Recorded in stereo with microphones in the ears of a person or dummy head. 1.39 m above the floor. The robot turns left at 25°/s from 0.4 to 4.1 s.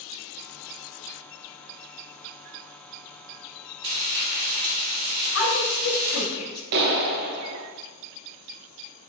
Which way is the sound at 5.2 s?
80° left.